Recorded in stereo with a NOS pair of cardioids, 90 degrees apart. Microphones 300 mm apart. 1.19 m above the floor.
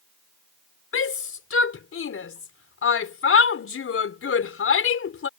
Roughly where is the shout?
Ahead left.